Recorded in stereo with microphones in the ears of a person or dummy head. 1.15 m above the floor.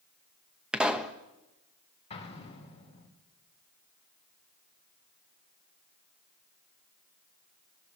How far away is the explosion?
About 3.5 m.